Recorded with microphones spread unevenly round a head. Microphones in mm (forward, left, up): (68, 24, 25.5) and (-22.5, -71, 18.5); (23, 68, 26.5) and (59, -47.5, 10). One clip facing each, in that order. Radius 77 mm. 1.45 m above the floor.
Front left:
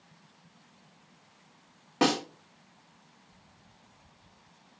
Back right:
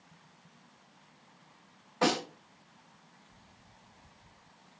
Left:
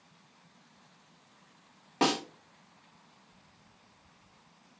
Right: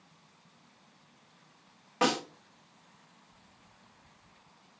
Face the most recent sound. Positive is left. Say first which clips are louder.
# front left 3 dB, even
turn(degrees=50)